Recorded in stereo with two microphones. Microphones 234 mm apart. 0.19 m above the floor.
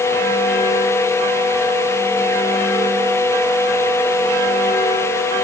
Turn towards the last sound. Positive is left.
No sound to turn to.